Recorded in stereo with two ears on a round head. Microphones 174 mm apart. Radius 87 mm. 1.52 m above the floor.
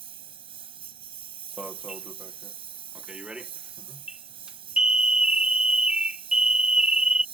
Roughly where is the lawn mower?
Right.